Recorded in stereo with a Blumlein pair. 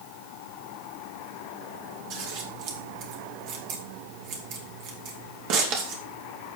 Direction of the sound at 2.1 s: 40° right.